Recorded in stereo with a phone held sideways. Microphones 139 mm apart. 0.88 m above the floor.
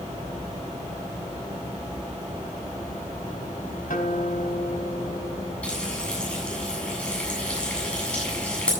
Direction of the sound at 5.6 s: 10° left (ahead or behind).